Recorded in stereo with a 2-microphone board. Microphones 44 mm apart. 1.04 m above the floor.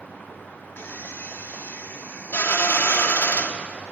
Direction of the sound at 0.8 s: 60° left (ahead or behind).